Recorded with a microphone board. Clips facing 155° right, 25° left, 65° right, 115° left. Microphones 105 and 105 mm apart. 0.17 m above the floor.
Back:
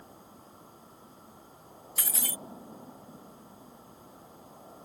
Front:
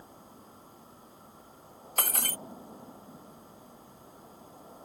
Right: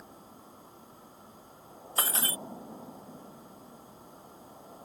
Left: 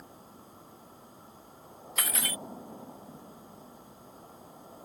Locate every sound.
2.0 s breaking glass: 10° right